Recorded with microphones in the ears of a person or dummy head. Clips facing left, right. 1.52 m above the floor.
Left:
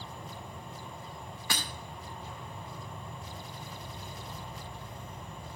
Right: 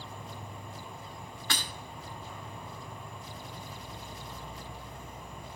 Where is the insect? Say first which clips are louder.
Even; 20° left (ahead or behind), 1.9 m.